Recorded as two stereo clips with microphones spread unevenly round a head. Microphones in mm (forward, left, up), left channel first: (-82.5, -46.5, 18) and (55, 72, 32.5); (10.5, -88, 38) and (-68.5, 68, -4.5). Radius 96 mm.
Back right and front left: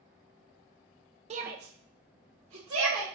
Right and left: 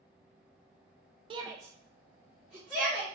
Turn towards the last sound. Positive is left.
turn(degrees=25)